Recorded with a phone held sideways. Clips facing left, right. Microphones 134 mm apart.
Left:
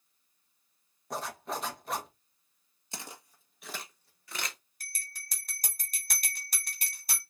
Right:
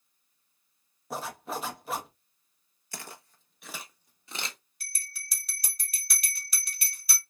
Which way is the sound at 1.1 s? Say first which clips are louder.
Right 1 dB; 5° right (ahead or behind).